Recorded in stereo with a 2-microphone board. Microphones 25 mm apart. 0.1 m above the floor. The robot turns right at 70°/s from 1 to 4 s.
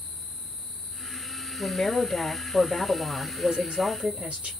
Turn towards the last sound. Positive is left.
turn(degrees=-90)